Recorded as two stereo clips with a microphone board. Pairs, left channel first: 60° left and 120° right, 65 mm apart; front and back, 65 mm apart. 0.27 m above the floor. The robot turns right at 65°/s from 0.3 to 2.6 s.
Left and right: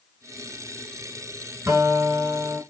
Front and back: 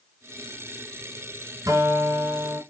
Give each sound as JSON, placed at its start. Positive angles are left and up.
{"t": 1.7, "sound": "a guitar", "azimuth_deg": -170, "distance_m": 1.4}